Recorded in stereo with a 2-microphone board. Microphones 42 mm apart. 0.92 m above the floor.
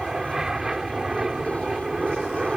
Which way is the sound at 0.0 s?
10° right (ahead or behind).